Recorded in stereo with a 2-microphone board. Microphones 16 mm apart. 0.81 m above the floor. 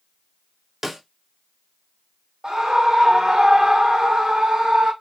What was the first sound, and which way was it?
A snare drum, 25° right (ahead or behind).